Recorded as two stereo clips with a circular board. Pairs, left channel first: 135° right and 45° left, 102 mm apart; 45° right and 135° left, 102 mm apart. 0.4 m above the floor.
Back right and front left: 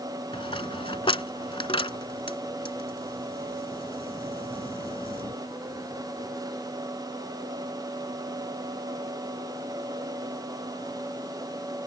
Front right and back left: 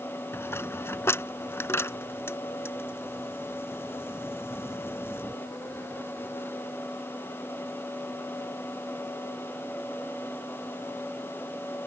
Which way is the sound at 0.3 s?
110° right.